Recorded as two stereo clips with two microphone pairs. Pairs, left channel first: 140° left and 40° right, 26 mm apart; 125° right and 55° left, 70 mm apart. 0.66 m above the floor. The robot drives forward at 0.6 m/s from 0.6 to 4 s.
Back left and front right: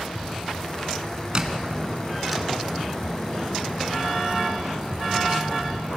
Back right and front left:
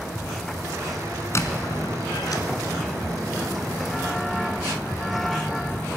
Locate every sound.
1.4 s a squeak: 90° right, 0.9 m; by 2.4 s 130° right, 1.1 m